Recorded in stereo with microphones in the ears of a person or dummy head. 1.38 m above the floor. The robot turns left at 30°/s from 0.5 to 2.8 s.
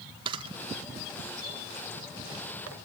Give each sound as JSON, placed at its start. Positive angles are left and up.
{"t": 0.2, "sound": "a camera shutter", "side_deg": -30, "distance_m": 1.2}